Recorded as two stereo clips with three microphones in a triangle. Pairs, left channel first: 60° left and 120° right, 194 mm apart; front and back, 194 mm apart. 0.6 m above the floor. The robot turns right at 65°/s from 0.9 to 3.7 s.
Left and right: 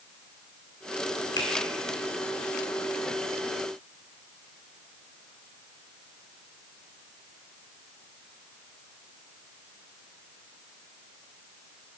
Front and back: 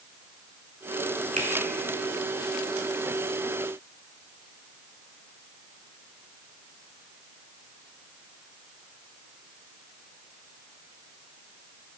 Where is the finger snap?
130° left, 1.5 m; by 1.5 s 135° left, 1.5 m.